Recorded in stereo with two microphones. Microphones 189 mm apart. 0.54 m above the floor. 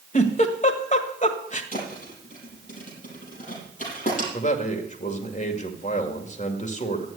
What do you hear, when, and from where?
0.1 s a giggle: 40° left (ahead or behind), 1.5 m
1.7 s a thud: 40° left (ahead or behind), 7 m
4.3 s a man speaking: 40° left (ahead or behind), 2 m